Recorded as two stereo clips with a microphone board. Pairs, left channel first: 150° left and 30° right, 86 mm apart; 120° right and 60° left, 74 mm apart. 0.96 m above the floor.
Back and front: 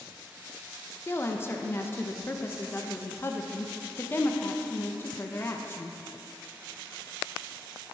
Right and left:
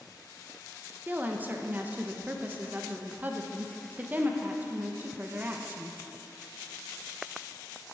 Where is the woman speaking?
110° left, 0.8 m.